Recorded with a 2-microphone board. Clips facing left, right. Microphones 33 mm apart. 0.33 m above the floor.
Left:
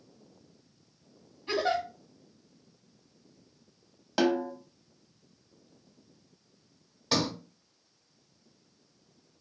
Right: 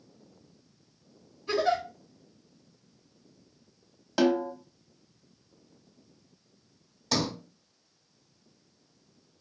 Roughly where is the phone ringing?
No phone ringing in this recording.